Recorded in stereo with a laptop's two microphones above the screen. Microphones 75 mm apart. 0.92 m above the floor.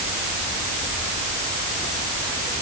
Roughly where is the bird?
No bird in this recording.